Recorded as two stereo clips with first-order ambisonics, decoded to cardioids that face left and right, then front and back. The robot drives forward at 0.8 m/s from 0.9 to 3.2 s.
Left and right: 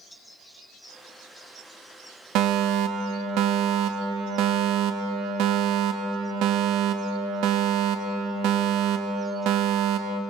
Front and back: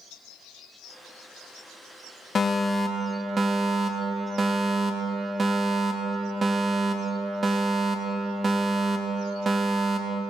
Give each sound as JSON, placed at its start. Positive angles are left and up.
{"t": 2.4, "sound": "a fire alarm", "azimuth_deg": -65, "distance_m": 1.0}